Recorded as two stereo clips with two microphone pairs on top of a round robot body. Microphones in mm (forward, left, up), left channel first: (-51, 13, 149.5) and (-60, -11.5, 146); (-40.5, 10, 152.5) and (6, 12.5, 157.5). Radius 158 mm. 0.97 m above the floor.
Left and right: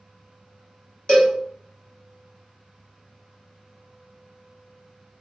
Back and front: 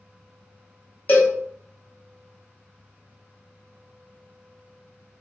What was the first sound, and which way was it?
A cowbell, 120° left.